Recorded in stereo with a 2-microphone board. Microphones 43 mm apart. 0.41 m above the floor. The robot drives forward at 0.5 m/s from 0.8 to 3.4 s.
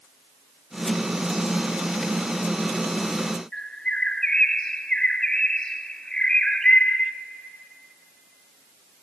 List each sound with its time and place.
3.5 s a bird: 20° left (ahead or behind), 0.6 m